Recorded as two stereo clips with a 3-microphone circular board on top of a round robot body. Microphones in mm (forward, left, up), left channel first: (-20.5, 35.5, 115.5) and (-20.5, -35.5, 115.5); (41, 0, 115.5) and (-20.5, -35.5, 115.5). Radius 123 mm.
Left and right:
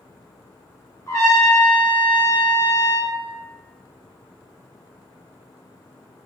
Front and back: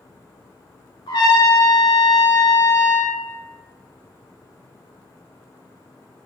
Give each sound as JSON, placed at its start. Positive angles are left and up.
{"t": 1.1, "sound": "a trumpet", "azimuth_deg": 35, "distance_m": 1.2}